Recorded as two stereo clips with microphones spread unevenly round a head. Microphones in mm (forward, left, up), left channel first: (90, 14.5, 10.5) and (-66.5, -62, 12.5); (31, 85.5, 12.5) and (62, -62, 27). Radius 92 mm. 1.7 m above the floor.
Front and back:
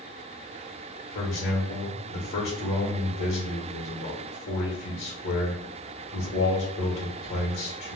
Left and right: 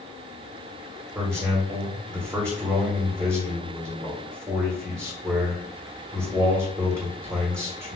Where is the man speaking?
15° right, 1.2 m.